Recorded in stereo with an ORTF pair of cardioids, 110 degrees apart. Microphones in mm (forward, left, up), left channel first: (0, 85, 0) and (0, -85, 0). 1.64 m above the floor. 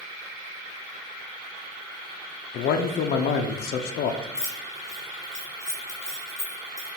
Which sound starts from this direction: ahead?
Keys jangling, at 4.3 s.